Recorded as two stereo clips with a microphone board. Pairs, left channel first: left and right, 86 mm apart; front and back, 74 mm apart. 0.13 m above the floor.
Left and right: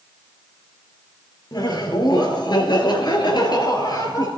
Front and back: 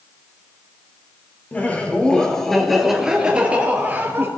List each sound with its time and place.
1.5 s laughter: 65° left, 2.5 m; by 4.3 s 120° left, 2.5 m